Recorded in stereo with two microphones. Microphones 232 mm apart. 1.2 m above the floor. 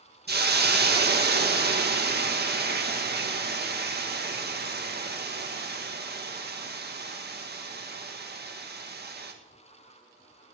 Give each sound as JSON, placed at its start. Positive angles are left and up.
{"t": 0.3, "sound": "a hiss", "side_deg": -45, "distance_m": 1.6}